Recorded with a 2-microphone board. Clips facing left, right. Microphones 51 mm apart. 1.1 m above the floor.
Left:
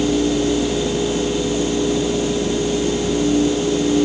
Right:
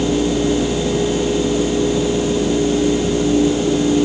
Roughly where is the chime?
No chime in this recording.